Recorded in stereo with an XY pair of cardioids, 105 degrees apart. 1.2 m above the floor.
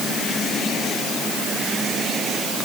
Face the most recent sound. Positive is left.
No sound to turn to.